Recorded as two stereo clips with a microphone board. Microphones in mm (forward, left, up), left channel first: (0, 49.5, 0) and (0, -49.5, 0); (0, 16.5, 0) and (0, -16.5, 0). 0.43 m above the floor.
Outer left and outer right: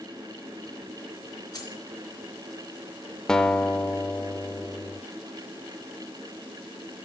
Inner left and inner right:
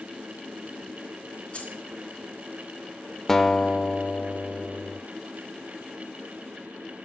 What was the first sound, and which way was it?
Keys jangling, 40° left (ahead or behind).